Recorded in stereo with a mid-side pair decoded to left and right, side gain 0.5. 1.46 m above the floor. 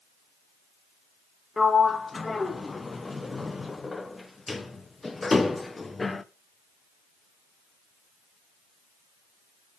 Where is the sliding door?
20° left, 0.7 m.